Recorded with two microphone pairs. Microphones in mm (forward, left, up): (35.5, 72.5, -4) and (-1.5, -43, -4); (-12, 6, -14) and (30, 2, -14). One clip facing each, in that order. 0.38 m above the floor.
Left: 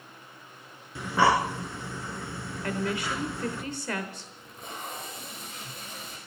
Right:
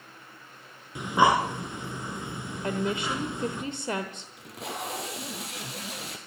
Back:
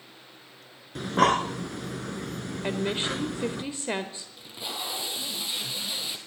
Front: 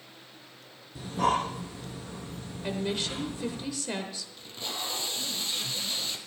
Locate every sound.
0.9 s breathing: straight behind, 1.3 m
2.6 s a woman speaking: 155° right, 1.0 m
4.4 s tape being pulled: 105° right, 1.9 m